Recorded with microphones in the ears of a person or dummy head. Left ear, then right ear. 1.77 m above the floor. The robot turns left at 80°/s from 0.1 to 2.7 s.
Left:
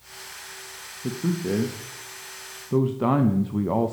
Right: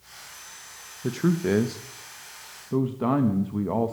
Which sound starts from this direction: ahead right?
A man speaking, at 1.0 s.